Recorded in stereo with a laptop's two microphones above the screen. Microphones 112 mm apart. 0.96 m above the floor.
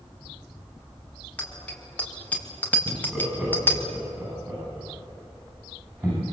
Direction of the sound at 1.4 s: 10° left (ahead or behind).